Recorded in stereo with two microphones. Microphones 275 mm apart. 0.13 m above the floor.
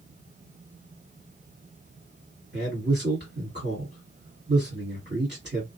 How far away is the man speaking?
About 2.0 m.